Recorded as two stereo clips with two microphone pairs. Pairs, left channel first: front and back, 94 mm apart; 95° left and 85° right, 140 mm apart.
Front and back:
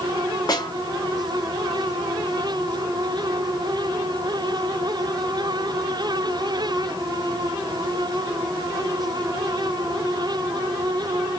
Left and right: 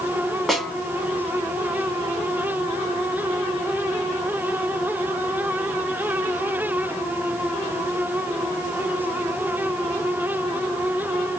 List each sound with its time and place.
0.5 s a snare drum: 10° left, 1.2 m